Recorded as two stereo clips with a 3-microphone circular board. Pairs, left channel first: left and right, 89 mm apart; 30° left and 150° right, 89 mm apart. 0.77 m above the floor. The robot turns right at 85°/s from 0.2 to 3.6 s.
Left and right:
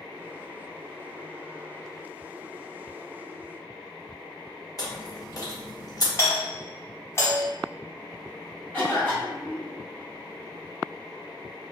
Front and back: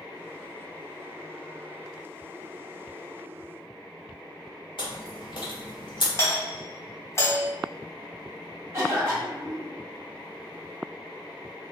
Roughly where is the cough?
Behind.